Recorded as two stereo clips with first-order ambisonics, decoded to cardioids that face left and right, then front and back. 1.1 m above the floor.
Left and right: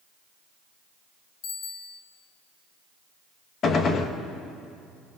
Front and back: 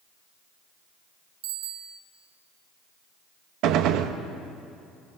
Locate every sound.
1.4 s a bicycle bell: 150° left, 2 m
3.6 s a gunshot: 150° left, 1.2 m